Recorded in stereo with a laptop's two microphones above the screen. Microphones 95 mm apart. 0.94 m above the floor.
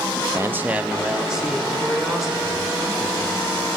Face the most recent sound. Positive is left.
turn(degrees=0)  # may be behind; listen again after turning